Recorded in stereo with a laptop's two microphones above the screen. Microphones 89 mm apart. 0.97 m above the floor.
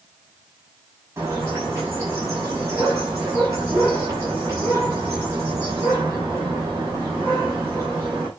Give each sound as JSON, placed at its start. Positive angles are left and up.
{"t": 1.2, "sound": "a bird", "side_deg": -35, "distance_m": 7.0}